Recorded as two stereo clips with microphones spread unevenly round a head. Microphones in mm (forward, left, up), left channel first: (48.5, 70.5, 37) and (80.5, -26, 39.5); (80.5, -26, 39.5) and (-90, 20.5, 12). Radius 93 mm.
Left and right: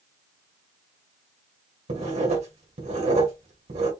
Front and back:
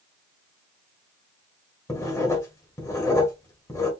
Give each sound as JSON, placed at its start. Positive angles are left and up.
{"t": 1.9, "sound": "writing", "azimuth_deg": -85, "distance_m": 1.8}